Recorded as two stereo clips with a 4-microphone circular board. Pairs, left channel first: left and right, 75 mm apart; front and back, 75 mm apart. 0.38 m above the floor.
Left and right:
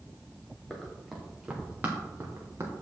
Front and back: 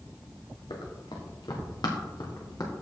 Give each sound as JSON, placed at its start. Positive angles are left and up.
{"t": 0.7, "sound": "running footsteps", "azimuth_deg": 5, "distance_m": 2.5}